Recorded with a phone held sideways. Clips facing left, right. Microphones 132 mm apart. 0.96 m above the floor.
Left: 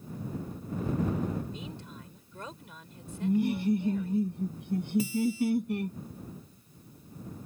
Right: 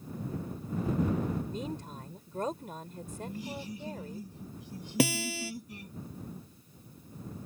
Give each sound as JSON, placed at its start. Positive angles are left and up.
{"t": 1.5, "sound": "a woman speaking", "side_deg": -45}
{"t": 3.2, "sound": "laughter", "side_deg": 60}
{"t": 5.0, "sound": "a guitar", "side_deg": -80}